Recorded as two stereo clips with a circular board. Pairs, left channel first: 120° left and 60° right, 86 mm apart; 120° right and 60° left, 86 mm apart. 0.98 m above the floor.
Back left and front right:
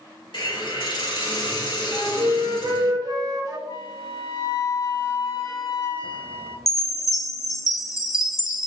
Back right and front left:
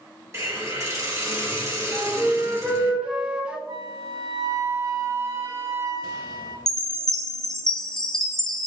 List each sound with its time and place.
0.3 s a hiss: 115° left, 2 m
1.9 s a flute: 15° right, 0.9 m
3.7 s a flute: 95° left, 1.8 m
6.7 s a chime: 160° left, 0.8 m